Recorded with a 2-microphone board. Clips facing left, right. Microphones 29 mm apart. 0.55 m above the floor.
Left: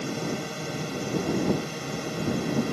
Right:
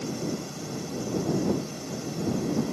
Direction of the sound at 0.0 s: 45° left (ahead or behind).